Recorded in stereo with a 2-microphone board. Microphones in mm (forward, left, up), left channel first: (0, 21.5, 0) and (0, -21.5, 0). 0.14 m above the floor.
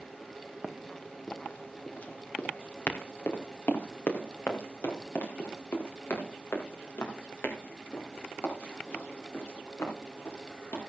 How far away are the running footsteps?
About 1.5 m.